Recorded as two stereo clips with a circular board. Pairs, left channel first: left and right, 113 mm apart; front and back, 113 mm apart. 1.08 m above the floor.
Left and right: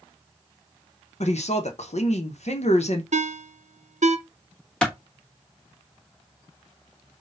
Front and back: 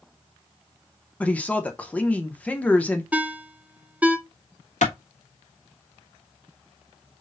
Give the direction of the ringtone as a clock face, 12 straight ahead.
3 o'clock.